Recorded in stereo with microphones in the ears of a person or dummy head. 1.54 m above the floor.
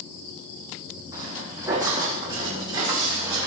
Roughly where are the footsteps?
Centre.